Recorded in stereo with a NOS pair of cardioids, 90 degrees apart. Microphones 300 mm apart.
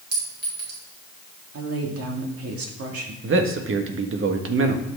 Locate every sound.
0.1 s a clink: 35° right, 4 m
1.5 s a woman speaking: 50° right, 2 m
3.2 s a man speaking: 45° right, 1.5 m